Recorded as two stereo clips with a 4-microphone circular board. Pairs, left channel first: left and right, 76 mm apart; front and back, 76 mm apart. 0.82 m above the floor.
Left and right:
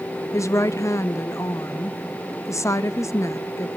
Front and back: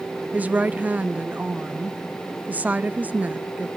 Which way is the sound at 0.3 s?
120° left.